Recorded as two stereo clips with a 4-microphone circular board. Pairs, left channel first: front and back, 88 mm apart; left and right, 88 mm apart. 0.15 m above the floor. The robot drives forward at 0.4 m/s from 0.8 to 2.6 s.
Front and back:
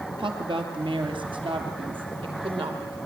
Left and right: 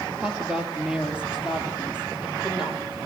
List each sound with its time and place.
0.2 s a woman speaking: 170° right, 3 m